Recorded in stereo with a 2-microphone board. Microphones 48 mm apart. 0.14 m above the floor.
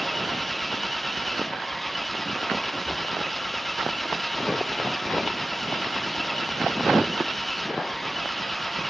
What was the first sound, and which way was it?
An engine running, 5° left (ahead or behind).